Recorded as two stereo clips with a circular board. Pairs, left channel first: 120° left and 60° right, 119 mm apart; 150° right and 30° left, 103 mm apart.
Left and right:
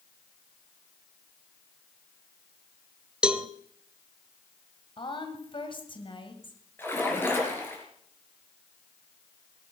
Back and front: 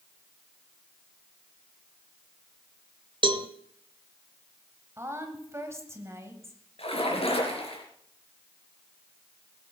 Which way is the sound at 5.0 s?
90° left.